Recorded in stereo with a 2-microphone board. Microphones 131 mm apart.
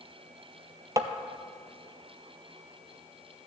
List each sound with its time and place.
1.0 s tapping: 30° right (ahead or behind), 0.6 m